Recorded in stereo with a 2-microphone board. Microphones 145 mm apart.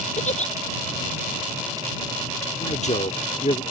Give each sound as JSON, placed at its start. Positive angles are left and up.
{"t": 0.2, "sound": "a giggle", "side_deg": 50}
{"t": 2.6, "sound": "a man speaking", "side_deg": 50}